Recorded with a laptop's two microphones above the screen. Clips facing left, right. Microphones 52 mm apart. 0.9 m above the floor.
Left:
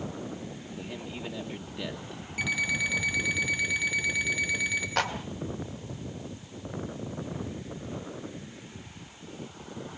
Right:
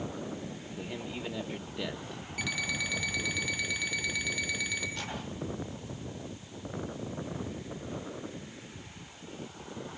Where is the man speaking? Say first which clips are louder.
Right 1 dB; 5° right (ahead or behind), 1.1 m.